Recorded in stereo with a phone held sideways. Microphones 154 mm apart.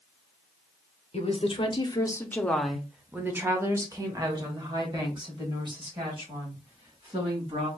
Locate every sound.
1.1 s a woman speaking: 40° left (ahead or behind), 0.8 m; by 7.7 s 35° right (ahead or behind), 3 m